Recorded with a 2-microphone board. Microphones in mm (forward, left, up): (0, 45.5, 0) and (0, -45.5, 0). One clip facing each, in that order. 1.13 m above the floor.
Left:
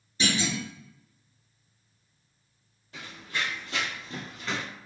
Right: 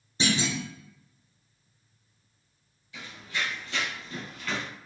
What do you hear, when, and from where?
0.2 s a clunk: 30° right (ahead or behind), 0.9 m
2.9 s running footsteps: 50° left (ahead or behind), 1.8 m; by 4.7 s 20° left (ahead or behind), 1.2 m